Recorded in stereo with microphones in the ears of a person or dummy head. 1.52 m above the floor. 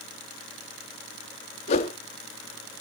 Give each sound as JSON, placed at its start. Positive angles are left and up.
{"t": 1.7, "sound": "a whoosh", "side_deg": 40, "distance_m": 0.8}